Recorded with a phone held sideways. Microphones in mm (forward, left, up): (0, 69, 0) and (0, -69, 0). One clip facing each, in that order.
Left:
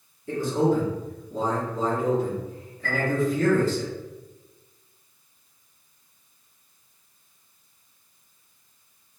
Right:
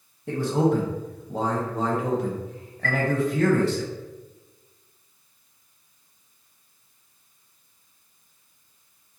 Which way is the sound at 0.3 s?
70° right (ahead or behind).